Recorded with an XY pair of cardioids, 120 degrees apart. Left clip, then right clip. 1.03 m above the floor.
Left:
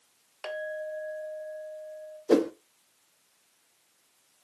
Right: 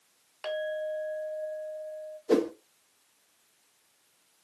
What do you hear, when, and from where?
0.4 s a clink: 15° left, 1.4 m
2.3 s a whoosh: 15° left, 0.7 m